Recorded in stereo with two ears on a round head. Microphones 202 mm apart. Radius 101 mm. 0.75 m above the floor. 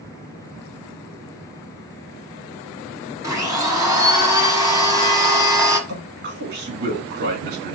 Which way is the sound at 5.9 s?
50° right (ahead or behind).